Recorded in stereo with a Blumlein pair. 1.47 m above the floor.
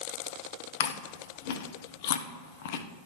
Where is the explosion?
No explosion in this recording.